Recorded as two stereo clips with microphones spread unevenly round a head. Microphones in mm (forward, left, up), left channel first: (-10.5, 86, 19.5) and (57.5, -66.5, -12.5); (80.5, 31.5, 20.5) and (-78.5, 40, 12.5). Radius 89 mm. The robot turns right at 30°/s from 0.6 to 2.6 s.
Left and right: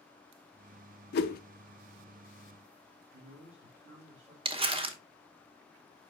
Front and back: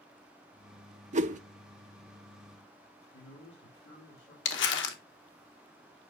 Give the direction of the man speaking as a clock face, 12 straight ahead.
1 o'clock.